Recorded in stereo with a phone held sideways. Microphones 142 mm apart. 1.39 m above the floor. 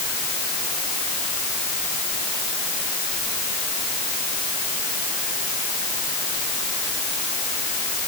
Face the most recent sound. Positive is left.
No sound to turn to.